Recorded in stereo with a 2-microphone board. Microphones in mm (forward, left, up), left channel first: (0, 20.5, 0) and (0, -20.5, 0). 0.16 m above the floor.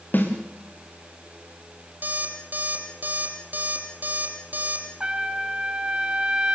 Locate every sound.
0.1 s a snare drum: 50° left (ahead or behind), 5.5 m
2.0 s an alarm clock: 50° right (ahead or behind), 3.5 m
5.0 s a trumpet: 25° right (ahead or behind), 2 m